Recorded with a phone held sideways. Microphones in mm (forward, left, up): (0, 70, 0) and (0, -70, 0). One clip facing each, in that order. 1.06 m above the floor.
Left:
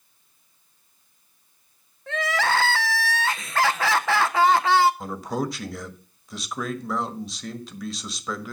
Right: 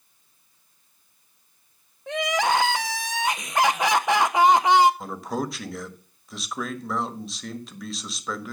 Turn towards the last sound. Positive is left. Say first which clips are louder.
# left 1 dB
turn(degrees=0)  # may be behind; listen again after turning